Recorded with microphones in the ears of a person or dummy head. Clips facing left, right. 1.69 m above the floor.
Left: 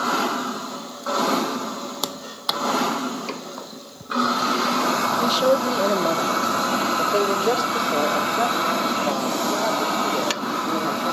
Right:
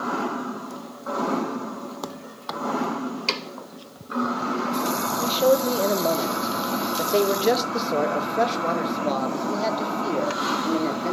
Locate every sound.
5.2 s a man speaking: 10° left (ahead or behind), 2.0 m; by 11.1 s 40° right (ahead or behind), 5 m